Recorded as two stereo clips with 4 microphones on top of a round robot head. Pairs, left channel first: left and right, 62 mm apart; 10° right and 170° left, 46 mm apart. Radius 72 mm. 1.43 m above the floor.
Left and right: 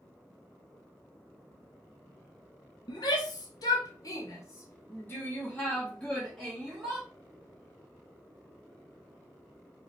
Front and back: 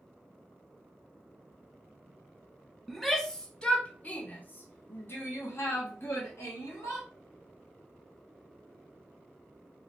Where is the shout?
75° left, 1.4 m; by 7.1 s straight ahead, 1.9 m.